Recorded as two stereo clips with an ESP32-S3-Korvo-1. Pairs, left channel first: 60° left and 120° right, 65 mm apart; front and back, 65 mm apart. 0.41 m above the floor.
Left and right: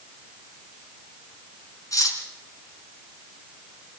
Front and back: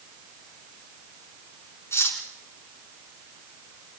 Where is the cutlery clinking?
45° left, 3 m.